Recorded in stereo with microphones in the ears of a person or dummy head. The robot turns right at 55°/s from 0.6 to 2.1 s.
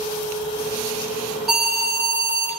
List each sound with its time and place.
1.5 s an alarm: straight behind, 5.5 m; by 2.5 s 145° right, 5.5 m